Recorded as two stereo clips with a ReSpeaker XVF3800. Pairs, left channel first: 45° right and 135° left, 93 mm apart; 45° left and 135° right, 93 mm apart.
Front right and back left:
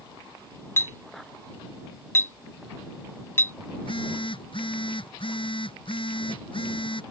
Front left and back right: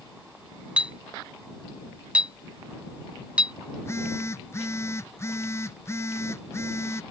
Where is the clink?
70° right.